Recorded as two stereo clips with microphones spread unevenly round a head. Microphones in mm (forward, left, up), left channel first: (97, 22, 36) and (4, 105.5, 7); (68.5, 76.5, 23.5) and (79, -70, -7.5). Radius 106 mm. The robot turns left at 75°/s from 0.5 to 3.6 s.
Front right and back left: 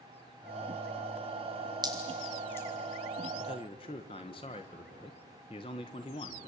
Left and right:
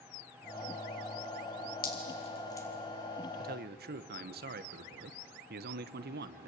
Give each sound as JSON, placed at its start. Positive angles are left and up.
{"t": 1.8, "sound": "dripping", "azimuth_deg": 85, "distance_m": 4.0}
{"t": 3.4, "sound": "a man speaking", "azimuth_deg": -75, "distance_m": 1.2}